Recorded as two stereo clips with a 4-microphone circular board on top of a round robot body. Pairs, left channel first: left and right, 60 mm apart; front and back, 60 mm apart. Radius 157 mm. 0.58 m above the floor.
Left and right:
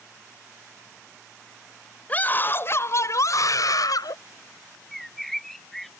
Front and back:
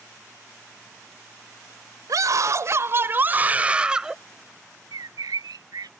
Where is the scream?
155° left; by 4.2 s 100° left.